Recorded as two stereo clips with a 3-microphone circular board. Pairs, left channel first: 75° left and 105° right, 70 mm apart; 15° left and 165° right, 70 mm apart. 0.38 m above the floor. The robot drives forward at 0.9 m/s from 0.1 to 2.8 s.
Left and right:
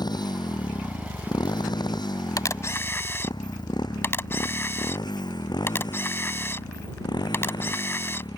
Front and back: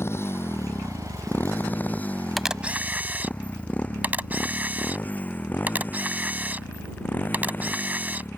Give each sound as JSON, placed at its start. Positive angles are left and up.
{"t": 0.0, "sound": "a motorcycle", "azimuth_deg": 65}
{"t": 2.4, "sound": "a camera shutter", "azimuth_deg": 105}